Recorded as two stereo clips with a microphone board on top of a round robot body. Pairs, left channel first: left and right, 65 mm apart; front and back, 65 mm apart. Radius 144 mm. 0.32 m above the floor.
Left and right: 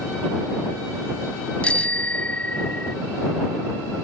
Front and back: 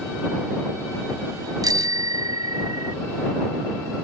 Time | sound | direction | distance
1.6 | a bicycle bell | 160° left | ?